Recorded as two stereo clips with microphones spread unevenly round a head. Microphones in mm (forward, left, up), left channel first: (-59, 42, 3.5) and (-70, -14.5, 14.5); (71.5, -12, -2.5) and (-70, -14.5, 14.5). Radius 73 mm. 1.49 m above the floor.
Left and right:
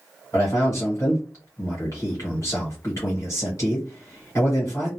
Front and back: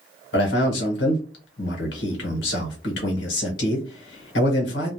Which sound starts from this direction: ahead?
A man speaking, at 0.3 s.